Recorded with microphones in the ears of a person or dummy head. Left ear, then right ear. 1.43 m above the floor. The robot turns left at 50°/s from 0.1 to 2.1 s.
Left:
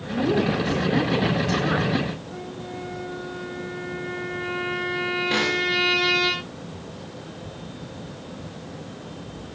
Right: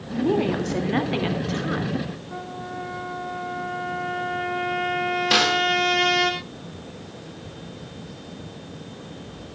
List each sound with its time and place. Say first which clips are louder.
0.1 s a woman speaking: even; 120° right, 2.5 m; by 2.1 s 145° left, 2.5 m
2.3 s a trumpet: right 2 dB; 40° right (ahead or behind), 3 m
5.3 s a snare drum: right 6 dB; 45° right (ahead or behind), 2.5 m